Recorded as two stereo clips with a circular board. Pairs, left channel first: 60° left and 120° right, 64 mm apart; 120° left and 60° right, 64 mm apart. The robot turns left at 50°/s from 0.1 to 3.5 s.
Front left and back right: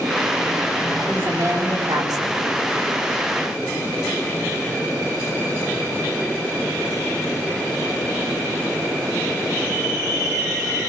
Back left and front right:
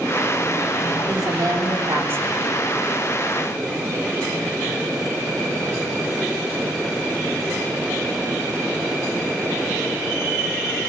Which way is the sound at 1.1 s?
60° right.